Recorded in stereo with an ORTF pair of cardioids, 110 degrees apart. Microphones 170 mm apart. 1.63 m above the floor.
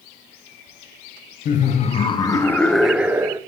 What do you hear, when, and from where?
1.4 s laughter: 55° left, 0.8 m; by 3.4 s 20° right, 0.9 m